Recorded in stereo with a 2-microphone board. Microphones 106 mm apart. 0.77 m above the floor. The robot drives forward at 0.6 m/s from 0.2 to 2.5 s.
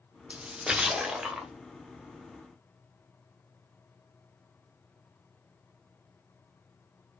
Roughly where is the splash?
Centre.